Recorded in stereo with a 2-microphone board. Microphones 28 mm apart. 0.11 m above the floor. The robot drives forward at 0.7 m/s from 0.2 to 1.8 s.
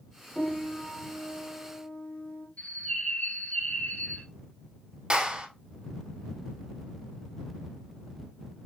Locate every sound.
0.3 s a piano: 35° left (ahead or behind), 3 m; by 2.5 s 45° left (ahead or behind), 2.5 m
2.6 s a bird: 50° left (ahead or behind), 2.5 m
5.1 s a clap: 35° right (ahead or behind), 1.5 m